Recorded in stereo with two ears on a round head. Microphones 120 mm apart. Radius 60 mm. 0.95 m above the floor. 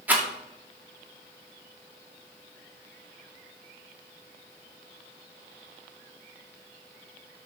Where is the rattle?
15° right (ahead or behind), 2 m.